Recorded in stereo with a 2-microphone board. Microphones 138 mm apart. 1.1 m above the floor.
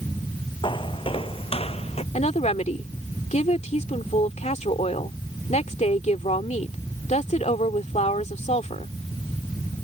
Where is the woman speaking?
60° left (ahead or behind).